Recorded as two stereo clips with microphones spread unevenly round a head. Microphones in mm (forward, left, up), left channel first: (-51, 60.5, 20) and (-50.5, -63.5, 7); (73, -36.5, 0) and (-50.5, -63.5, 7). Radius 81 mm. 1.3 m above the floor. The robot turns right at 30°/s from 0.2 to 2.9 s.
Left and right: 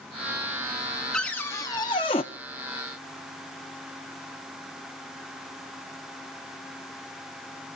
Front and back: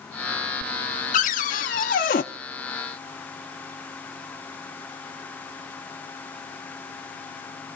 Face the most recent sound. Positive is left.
turn(degrees=60)